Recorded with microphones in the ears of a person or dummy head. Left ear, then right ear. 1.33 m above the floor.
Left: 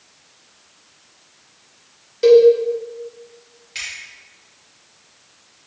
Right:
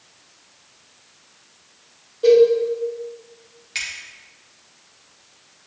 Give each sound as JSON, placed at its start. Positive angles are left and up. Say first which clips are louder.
{"t": 2.2, "sound": "a cowbell", "louder": "left 2 dB", "side_deg": 65, "distance_m": 1.6}
{"t": 3.8, "sound": "a finger snap", "louder": "right 1 dB", "side_deg": -20, "distance_m": 1.8}